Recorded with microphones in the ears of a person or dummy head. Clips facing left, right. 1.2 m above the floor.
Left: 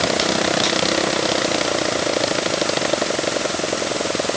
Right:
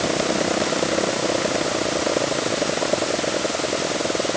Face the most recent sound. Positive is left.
No sound to turn to.